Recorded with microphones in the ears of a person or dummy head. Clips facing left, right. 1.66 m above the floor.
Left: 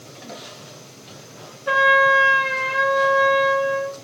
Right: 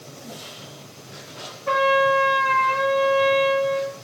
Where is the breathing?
I don't hear breathing.